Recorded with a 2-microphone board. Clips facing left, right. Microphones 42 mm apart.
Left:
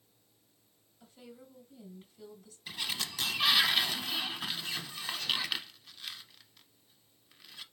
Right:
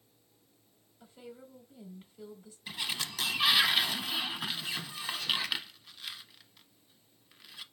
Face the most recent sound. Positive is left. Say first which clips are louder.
# right 1 dB
turn(degrees=-10)  # may be behind; listen again after turning